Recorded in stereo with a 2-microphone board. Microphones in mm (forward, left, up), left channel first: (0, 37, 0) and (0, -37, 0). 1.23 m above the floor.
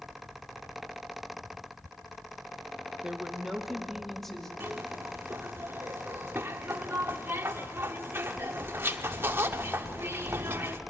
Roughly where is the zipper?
Right.